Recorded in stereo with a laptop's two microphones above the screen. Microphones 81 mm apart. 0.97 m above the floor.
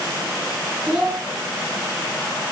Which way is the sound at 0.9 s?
15° right (ahead or behind).